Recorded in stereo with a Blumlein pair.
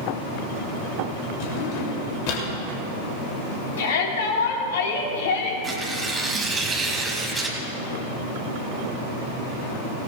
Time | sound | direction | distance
1.4 | a drawer | 45° left | 2.5 m
3.8 | a shout | 60° left | 3.5 m
5.6 | tearing paper | 10° right | 2.5 m